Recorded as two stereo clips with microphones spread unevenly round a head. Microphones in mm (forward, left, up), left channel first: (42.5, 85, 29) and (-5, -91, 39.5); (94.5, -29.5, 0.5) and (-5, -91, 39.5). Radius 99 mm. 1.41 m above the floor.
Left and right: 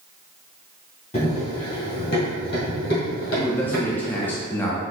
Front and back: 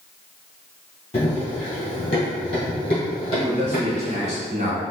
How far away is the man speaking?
About 0.6 m.